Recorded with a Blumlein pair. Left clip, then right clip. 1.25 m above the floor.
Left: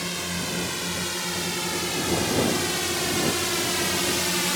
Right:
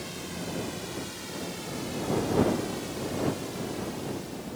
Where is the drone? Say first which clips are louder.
Left 8 dB; 30° left; by 4.6 s 40° left.